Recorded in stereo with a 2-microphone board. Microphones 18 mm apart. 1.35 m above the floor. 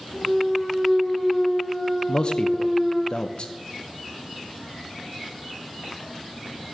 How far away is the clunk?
About 5.5 m.